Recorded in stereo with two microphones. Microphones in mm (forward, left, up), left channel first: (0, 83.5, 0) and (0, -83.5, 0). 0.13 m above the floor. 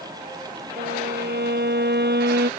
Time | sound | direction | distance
0.8 | a violin | 80° right | ?